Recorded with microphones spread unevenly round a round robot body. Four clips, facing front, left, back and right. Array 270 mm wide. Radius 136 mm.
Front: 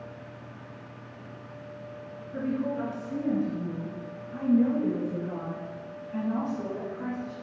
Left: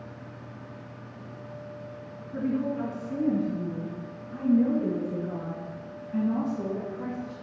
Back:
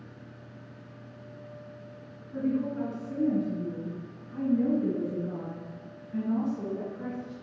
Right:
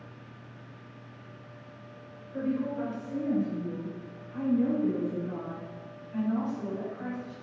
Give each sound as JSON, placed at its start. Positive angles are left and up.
{"t": 2.3, "sound": "a woman speaking", "azimuth_deg": 125, "distance_m": 3.5}